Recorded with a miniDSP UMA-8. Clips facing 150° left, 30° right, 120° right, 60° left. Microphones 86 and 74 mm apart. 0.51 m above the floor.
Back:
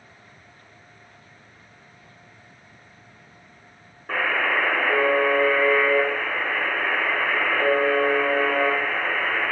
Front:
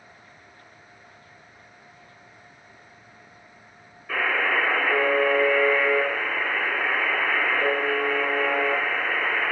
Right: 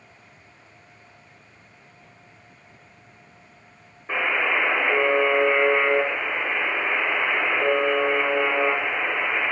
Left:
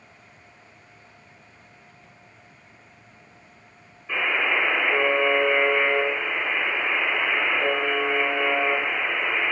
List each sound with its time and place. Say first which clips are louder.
4.1 s a buzzer: back 1 dB, right 1 dB; 170° right, 0.6 m